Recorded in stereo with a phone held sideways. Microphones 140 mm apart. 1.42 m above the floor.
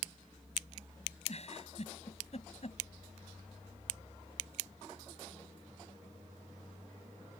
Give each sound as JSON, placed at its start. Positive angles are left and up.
{"t": 1.3, "sound": "a giggle", "side_deg": 50}